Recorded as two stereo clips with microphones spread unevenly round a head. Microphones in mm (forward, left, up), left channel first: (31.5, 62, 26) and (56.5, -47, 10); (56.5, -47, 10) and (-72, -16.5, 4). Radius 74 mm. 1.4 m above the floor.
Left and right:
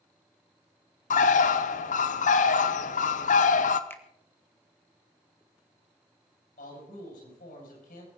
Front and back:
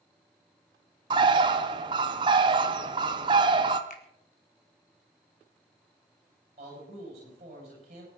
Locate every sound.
1.1 s a bird: 110° left, 0.8 m
3.9 s a finger snap: 30° left, 1.7 m
6.6 s a man speaking: 115° left, 9 m